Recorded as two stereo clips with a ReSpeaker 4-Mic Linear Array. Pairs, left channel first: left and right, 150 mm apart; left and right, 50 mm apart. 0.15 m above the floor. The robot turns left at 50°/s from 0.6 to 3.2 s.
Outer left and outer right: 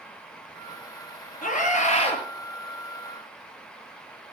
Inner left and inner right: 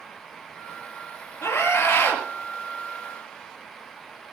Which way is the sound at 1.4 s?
80° left.